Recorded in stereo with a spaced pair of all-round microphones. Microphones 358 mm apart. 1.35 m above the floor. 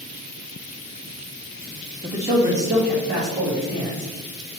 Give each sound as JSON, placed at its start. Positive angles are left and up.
{"t": 2.0, "sound": "a man speaking", "side_deg": 0, "distance_m": 0.8}